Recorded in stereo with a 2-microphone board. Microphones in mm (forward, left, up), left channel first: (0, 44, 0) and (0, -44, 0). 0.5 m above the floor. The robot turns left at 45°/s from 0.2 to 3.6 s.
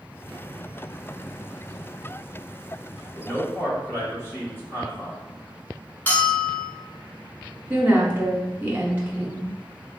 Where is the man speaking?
30° left (ahead or behind), 1.0 m; by 5.2 s 25° left (ahead or behind), 1.0 m.